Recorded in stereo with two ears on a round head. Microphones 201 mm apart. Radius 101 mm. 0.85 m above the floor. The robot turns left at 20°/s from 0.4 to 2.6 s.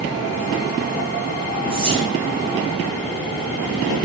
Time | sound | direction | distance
1.7 | whispering | 25° right (ahead or behind) | 0.6 m